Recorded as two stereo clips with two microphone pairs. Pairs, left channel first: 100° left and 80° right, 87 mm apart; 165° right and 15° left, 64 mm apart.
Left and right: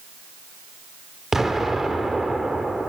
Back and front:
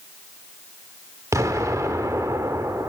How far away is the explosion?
About 1.2 m.